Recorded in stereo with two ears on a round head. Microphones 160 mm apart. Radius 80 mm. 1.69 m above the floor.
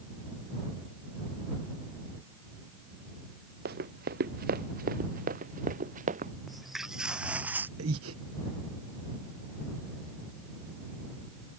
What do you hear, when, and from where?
3.6 s running footsteps: 55° right (ahead or behind); by 6.3 s 45° right (ahead or behind)
6.5 s footsteps: centre (ahead or behind); by 7.7 s 10° right (ahead or behind)
7.8 s breathing: 85° right